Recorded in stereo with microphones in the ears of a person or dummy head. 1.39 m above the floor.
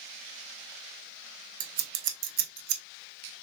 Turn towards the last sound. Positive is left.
turn(degrees=-65)  # may be behind; listen again after turning